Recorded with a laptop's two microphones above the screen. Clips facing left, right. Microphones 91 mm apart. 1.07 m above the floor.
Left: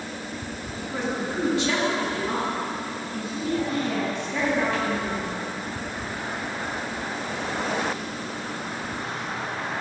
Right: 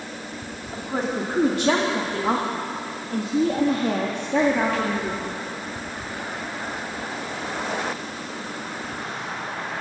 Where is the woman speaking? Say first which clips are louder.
Right 3 dB; 40° right (ahead or behind), 2.5 m; by 5.4 s 35° right (ahead or behind), 2.5 m.